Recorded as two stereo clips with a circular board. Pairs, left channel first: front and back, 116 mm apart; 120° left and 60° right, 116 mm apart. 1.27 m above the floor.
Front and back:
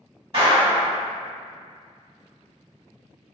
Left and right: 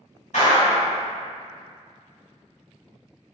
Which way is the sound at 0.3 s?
135° left.